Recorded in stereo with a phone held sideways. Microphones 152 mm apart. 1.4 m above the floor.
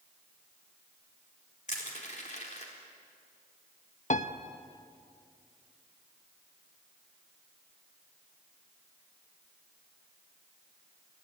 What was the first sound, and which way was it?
Crushing, 50° left (ahead or behind).